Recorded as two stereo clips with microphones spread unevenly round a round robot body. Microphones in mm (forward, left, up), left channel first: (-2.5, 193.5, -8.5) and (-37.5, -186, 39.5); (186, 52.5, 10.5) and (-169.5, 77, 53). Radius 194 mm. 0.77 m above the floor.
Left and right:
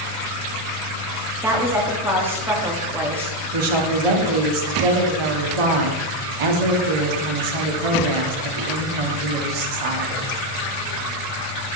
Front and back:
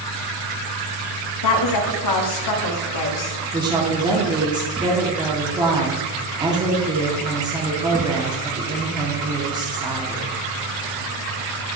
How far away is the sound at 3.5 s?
About 1.8 m.